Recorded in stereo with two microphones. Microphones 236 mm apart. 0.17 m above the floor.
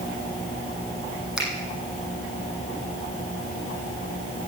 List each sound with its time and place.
1.4 s a finger snap: centre (ahead or behind), 7 m